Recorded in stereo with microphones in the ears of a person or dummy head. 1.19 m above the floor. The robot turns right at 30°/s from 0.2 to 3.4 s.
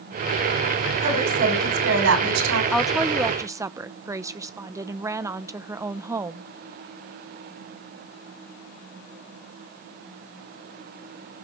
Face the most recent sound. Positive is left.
turn(degrees=-15)  # may be behind; listen again after turning